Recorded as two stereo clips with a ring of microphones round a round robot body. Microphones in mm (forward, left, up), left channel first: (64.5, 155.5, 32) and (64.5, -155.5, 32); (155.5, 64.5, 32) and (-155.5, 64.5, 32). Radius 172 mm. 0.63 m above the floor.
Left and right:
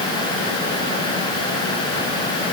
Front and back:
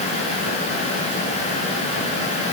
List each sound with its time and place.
Only background noise.